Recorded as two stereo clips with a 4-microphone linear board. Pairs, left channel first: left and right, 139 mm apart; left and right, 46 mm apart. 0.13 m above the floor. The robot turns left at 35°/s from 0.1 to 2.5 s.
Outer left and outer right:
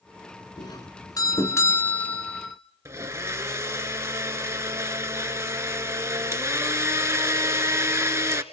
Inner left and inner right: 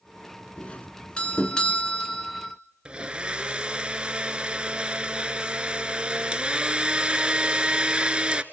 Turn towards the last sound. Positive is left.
turn(degrees=-20)  # may be behind; listen again after turning